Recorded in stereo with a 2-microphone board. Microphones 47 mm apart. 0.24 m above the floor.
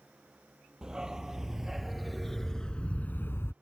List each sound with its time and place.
0.8 s a dog barking: 15° right (ahead or behind); by 3.5 s 70° left (ahead or behind)